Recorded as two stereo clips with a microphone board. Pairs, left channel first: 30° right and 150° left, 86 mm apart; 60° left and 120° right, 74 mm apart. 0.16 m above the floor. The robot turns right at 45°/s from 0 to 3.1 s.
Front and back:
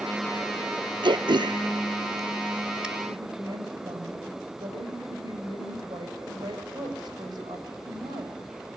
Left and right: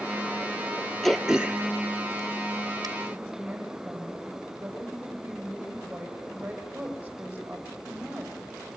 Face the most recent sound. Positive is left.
turn(degrees=170)